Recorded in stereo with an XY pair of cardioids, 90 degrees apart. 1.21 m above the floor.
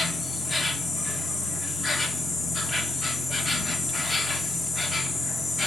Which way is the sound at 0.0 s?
35° left.